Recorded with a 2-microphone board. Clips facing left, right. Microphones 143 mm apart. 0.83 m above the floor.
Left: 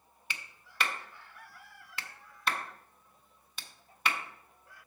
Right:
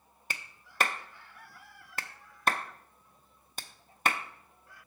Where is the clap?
45° right (ahead or behind), 0.5 m.